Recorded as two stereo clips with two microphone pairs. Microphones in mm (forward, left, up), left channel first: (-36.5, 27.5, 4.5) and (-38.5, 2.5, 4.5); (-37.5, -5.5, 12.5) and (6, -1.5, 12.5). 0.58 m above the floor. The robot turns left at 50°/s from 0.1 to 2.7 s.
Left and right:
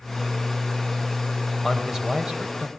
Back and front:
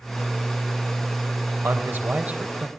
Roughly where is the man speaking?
Ahead.